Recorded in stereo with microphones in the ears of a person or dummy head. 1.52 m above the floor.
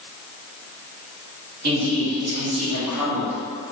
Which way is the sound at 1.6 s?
45° right (ahead or behind).